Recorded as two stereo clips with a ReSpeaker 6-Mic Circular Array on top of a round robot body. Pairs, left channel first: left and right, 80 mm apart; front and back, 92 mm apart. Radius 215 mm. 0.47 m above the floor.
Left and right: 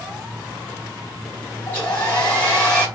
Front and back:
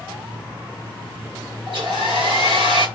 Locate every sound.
1.7 s a hair dryer: 150° left, 3.5 m